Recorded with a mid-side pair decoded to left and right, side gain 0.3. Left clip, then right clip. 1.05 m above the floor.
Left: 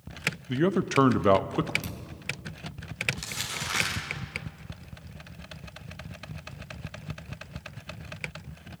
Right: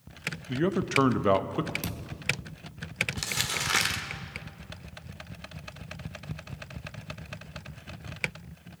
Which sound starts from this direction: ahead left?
A man speaking, at 0.5 s.